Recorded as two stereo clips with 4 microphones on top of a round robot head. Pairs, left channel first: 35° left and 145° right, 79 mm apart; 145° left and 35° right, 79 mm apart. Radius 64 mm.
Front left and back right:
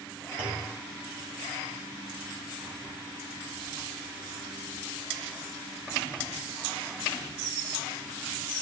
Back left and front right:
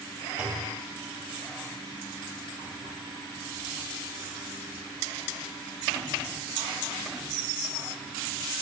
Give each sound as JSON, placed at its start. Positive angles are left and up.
{"t": 0.4, "sound": "a clunk", "azimuth_deg": -110, "distance_m": 1.6}